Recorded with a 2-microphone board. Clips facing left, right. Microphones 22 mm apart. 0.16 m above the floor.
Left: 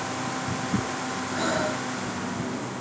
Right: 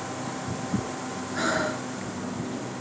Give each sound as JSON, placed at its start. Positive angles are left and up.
{"t": 1.4, "sound": "breathing", "side_deg": -15, "distance_m": 1.7}